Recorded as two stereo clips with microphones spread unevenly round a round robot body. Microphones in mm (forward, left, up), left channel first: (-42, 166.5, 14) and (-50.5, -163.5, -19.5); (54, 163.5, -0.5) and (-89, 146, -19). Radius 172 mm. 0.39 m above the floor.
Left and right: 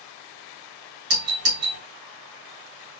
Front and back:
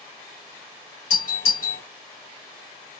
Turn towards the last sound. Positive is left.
turn(degrees=-45)